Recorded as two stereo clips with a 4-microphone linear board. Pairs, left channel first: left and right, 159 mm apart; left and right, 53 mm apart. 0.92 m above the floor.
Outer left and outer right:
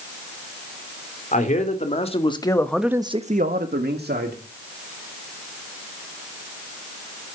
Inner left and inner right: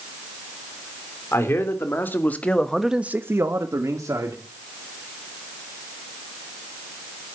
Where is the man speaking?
50° left (ahead or behind), 3 m; by 4.4 s 80° right, 2.5 m.